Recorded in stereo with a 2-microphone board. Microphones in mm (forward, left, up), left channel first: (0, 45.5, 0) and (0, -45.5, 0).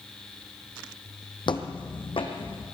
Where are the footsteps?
60° left (ahead or behind), 1.4 m; by 2.6 s 70° left (ahead or behind), 2.5 m.